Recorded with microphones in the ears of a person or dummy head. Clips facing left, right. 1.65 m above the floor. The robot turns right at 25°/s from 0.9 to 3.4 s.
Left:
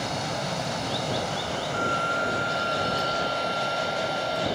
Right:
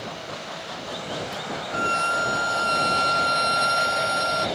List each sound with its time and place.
0.0 s running water: 115° left; by 4.6 s straight behind
1.7 s a violin: 140° right; by 4.5 s 95° right